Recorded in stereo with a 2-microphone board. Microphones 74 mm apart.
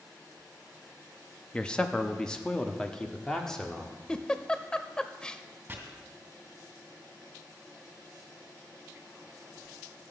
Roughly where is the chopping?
Right.